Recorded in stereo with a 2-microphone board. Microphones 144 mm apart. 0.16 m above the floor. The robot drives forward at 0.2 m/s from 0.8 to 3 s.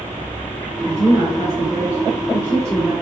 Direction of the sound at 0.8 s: 20° right (ahead or behind).